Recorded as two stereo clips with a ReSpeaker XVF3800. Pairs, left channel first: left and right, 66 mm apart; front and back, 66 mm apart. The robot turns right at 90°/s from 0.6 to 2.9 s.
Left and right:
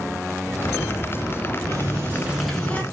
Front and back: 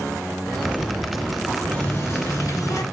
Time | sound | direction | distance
1.7 | a running tap | 75° right | 1.8 m